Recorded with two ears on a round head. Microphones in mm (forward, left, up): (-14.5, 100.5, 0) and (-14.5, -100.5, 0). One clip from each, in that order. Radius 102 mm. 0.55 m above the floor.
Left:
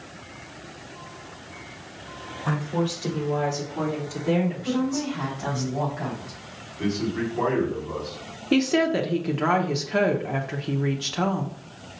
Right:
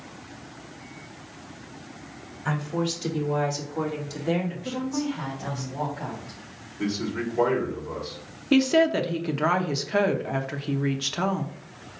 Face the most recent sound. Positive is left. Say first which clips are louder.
# right 1 dB
turn(degrees=-15)  # may be behind; listen again after turning